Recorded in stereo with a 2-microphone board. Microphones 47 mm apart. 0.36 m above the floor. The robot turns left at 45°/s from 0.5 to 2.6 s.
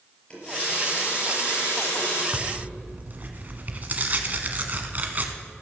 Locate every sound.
0.3 s a running tap: 155° left, 4.5 m; by 2.2 s 80° left, 4.5 m
2.3 s tearing paper: 25° right (ahead or behind), 1.2 m; by 5.3 s 35° right (ahead or behind), 1.2 m